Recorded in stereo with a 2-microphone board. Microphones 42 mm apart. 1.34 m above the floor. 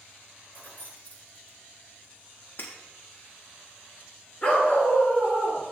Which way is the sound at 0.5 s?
45° left (ahead or behind).